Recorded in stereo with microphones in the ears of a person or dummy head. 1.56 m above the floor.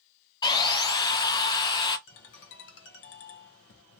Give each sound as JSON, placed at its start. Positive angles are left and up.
{"t": 0.4, "sound": "sawing", "side_deg": 20, "distance_m": 0.7}
{"t": 2.1, "sound": "a ringtone", "side_deg": 60, "distance_m": 1.0}